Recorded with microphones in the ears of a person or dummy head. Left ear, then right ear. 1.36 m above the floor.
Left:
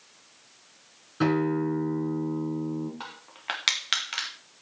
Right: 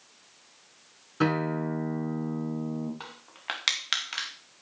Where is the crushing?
Centre (ahead or behind), 2 m.